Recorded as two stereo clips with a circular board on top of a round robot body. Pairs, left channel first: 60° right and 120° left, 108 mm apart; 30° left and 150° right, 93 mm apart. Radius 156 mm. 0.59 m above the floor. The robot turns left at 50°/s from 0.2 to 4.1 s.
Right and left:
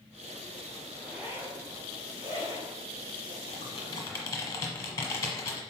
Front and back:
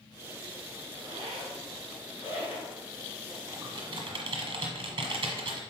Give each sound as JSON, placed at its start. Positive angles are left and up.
{"t": 1.0, "sound": "a zipper", "azimuth_deg": -150, "distance_m": 2.5}
{"t": 3.5, "sound": "typing on a keyboard", "azimuth_deg": -95, "distance_m": 1.0}